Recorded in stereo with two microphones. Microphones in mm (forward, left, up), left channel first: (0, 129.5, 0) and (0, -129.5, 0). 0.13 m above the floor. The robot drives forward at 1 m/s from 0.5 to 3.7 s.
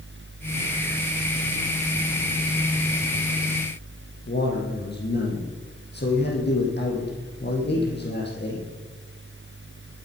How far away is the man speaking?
About 4.5 m.